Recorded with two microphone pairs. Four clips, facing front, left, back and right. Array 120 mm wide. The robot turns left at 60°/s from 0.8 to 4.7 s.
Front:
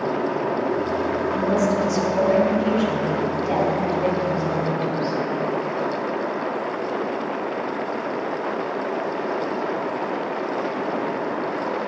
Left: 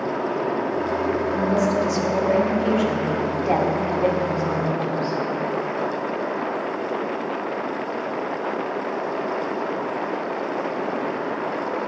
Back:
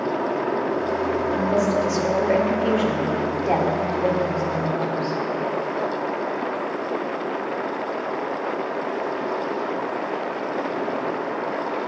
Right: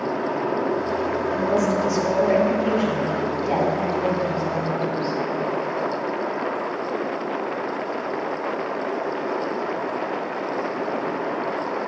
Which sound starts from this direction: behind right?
A woman speaking, at 1.3 s.